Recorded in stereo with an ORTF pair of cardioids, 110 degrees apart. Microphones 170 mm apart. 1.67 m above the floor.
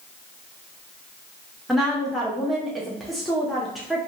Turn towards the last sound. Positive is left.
turn(degrees=0)